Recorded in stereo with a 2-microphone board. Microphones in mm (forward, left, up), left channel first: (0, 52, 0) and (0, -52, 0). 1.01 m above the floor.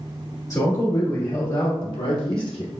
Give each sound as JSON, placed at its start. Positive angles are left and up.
{"t": 0.5, "sound": "a man speaking", "side_deg": 35, "distance_m": 1.8}